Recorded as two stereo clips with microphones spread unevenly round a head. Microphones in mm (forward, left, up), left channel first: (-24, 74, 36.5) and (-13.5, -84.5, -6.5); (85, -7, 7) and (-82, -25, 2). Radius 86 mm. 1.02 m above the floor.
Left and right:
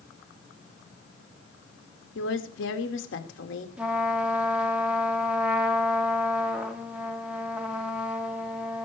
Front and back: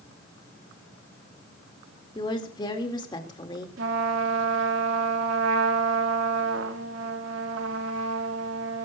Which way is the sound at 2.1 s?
75° left.